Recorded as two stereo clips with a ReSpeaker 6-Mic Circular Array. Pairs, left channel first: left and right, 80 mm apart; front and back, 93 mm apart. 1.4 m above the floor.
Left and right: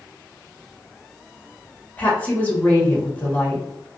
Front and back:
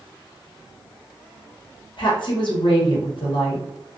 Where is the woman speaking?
20° left, 1.1 m.